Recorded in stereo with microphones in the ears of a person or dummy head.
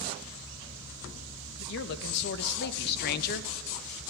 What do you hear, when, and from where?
1.6 s a man speaking: 65° left (ahead or behind), 2 m; by 3.5 s 50° left (ahead or behind), 1.2 m